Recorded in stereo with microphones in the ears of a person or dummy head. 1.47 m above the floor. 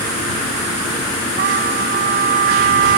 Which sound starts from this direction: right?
A trumpet, at 1.4 s.